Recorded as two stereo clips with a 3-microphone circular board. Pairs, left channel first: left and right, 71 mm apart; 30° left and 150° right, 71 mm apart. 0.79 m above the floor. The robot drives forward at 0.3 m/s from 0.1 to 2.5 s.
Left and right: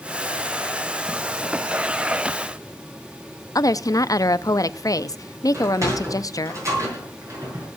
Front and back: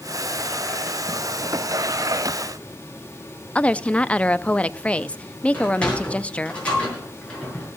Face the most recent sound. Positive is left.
turn(degrees=-45)